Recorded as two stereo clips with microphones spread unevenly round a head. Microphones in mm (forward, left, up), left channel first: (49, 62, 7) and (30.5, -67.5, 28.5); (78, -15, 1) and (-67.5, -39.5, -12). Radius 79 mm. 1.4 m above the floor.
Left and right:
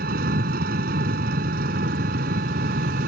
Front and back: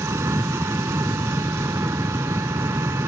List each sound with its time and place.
0.0 s an engine running: 95° right